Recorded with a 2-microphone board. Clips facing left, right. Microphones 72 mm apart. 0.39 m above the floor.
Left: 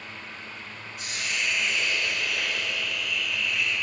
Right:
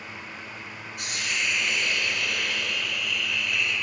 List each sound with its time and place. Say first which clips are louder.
1.0 s a hiss: right 1 dB; 70° right (ahead or behind), 2.5 m